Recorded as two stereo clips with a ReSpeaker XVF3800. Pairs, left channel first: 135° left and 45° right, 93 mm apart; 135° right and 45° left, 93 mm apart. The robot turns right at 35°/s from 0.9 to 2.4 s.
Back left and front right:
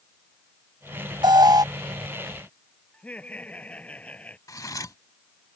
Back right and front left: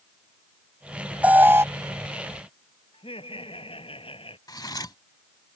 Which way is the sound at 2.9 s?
150° right.